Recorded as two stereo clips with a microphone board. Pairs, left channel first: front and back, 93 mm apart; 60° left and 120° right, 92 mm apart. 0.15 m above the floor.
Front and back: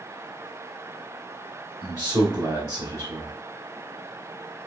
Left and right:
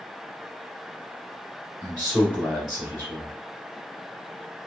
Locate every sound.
1.8 s a man speaking: 165° right, 1.4 m